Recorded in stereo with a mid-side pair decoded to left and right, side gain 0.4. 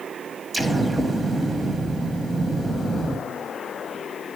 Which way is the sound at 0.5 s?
25° right.